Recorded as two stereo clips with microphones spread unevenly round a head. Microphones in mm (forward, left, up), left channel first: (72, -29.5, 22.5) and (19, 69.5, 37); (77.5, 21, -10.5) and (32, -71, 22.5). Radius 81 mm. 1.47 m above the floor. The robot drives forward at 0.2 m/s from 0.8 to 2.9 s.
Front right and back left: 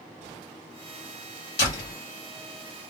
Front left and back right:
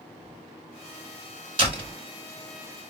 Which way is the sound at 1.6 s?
95° right.